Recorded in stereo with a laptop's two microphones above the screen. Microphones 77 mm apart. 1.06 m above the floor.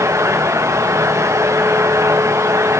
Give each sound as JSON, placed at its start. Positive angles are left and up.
{"t": 0.0, "sound": "a fan", "side_deg": -40, "distance_m": 1.1}